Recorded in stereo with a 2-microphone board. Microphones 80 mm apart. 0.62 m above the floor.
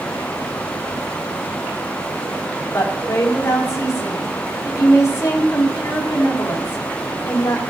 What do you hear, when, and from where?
2.7 s a woman speaking: 35° left (ahead or behind), 3 m